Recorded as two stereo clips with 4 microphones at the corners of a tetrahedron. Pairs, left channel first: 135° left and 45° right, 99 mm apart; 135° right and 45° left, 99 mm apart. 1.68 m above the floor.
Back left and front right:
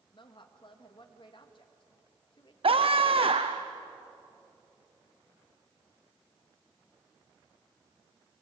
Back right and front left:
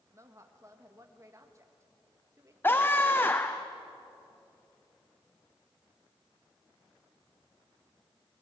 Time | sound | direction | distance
0.1 | a woman speaking | 100° left | 1.9 m
2.6 | a scream | 65° right | 0.7 m